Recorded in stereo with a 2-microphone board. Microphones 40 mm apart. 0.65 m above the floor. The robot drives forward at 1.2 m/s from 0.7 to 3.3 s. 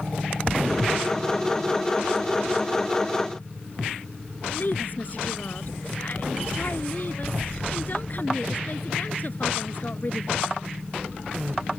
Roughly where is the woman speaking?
Left.